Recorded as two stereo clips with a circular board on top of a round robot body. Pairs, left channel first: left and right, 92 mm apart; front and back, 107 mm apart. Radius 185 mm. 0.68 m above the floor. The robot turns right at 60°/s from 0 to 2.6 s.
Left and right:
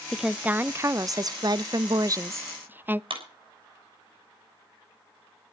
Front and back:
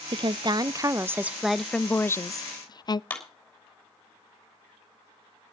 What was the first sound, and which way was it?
A woman speaking, straight behind.